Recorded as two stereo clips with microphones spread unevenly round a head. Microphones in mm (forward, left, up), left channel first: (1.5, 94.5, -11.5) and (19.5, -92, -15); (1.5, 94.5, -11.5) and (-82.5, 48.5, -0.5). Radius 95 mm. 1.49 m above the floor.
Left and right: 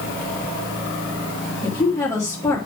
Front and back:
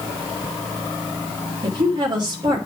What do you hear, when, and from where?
1.6 s a woman speaking: 170° left, 2.5 m